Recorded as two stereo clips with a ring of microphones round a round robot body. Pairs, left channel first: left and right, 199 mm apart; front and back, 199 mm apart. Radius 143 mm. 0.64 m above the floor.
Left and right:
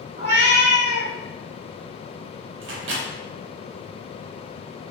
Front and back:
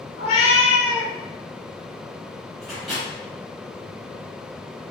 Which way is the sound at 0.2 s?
30° right.